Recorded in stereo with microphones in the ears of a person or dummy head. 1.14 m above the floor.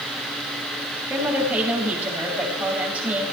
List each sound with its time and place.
1.1 s a woman speaking: 10° right (ahead or behind), 6 m